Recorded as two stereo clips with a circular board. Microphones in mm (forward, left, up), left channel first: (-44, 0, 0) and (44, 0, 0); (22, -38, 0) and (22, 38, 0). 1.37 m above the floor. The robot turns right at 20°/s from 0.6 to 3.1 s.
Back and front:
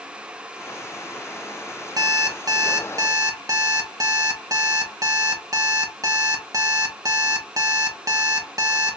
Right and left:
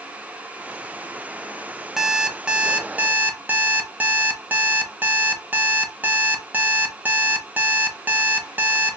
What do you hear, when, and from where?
2.0 s an alarm clock: 5° left, 0.6 m; by 9.0 s 30° left, 0.6 m